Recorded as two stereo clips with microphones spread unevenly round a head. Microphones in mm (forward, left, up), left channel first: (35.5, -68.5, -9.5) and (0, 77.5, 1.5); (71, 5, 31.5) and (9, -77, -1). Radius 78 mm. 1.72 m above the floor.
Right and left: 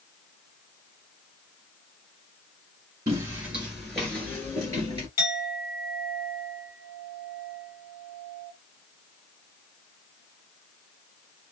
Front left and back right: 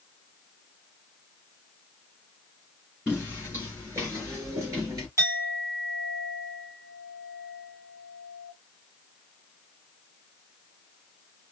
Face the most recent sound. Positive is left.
turn(degrees=-60)